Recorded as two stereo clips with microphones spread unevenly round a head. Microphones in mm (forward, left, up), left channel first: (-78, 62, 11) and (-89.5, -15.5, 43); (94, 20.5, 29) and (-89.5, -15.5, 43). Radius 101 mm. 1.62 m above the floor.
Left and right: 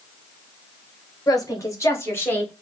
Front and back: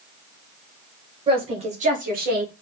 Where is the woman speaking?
125° left, 2 m; by 2.5 s 155° left, 2 m.